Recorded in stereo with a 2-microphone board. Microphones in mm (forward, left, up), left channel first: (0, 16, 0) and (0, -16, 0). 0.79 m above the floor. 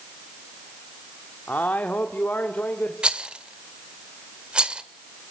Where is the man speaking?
75° left (ahead or behind), 1.6 m.